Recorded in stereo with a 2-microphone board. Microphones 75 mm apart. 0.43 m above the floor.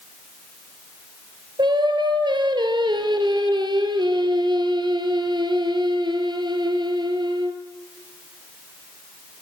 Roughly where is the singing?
Right.